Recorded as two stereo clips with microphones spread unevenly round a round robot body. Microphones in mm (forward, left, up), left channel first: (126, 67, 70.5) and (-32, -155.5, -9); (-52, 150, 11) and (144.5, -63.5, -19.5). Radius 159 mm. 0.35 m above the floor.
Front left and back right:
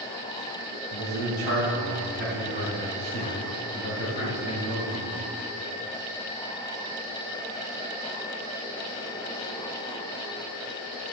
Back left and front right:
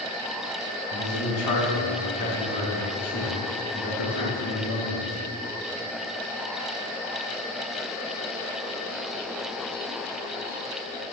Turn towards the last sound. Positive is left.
turn(degrees=160)